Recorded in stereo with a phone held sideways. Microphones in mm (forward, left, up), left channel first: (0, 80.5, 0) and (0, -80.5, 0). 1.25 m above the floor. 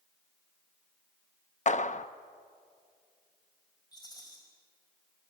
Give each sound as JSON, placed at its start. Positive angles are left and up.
{"t": 1.7, "sound": "a clap", "side_deg": 50, "distance_m": 0.6}
{"t": 3.9, "sound": "a rattle", "side_deg": 25, "distance_m": 5.0}